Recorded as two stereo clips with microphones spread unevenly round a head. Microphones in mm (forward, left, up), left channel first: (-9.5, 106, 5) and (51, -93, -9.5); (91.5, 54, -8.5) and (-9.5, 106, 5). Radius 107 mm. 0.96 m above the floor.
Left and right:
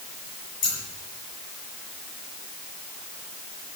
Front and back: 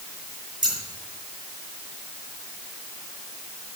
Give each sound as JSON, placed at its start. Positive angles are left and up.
{"t": 0.6, "sound": "scissors", "azimuth_deg": 100, "distance_m": 4.5}